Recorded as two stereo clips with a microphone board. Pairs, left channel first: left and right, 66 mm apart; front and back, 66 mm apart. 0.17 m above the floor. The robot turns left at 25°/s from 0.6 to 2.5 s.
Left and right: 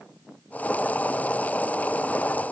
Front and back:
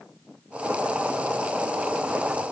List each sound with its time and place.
Only background noise.